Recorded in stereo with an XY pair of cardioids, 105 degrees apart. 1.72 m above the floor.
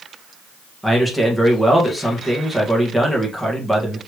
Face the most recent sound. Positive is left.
turn(degrees=0)